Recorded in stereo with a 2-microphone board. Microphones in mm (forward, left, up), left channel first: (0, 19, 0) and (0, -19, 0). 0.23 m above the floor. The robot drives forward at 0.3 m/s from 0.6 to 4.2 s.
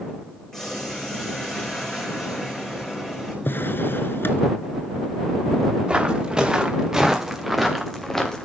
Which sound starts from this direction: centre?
Boiling, at 0.5 s.